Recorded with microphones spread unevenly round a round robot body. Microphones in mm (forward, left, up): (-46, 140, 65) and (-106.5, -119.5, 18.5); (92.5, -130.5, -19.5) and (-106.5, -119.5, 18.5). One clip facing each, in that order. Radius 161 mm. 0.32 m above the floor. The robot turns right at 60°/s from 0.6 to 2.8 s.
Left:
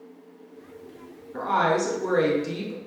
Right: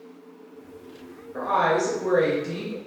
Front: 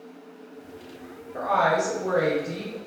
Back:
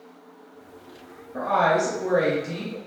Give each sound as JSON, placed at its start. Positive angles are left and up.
{"t": 1.3, "sound": "a woman speaking", "azimuth_deg": 55, "distance_m": 1.0}